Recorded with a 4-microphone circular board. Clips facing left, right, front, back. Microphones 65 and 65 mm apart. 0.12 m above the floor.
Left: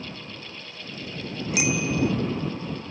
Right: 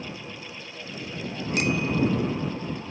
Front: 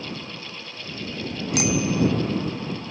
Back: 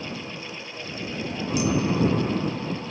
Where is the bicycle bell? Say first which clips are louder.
Even, front 1 dB; 5° left.